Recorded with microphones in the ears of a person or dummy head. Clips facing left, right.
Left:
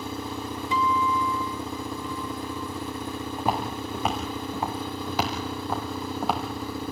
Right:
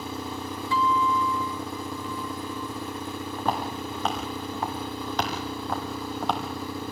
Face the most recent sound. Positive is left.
turn(degrees=5)  # may be behind; listen again after turning